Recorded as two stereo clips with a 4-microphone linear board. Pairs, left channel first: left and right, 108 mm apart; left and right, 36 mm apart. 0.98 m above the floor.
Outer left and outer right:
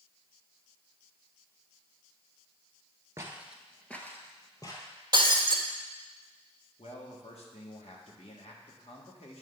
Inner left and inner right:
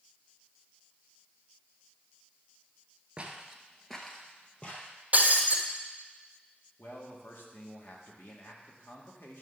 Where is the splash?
No splash in this recording.